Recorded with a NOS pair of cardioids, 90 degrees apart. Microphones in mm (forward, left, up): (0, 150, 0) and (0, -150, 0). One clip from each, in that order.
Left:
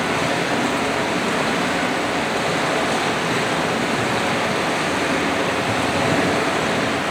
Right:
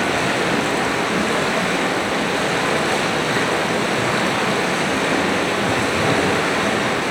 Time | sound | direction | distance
0.0 | running water | 20° right | 3 m